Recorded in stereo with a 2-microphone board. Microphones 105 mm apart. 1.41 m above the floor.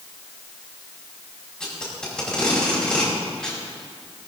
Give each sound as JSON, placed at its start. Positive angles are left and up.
{"t": 1.6, "sound": "tape being pulled", "side_deg": 5, "distance_m": 4.5}